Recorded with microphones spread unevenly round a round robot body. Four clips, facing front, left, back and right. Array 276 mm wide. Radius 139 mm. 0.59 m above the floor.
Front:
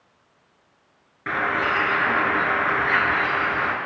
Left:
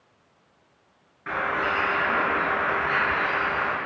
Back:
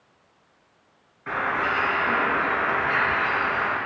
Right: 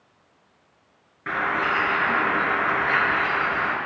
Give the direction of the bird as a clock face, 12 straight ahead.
1 o'clock.